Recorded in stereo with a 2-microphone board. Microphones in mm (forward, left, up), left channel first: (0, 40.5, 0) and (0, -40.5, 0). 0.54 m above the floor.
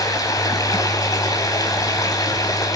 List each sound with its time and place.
0.0 s running water: 45° left (ahead or behind), 3.5 m